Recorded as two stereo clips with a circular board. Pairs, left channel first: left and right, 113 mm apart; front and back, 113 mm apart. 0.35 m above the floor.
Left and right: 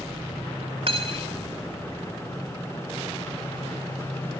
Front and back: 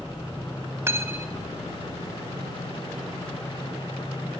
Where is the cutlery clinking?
115° right, 1.0 m.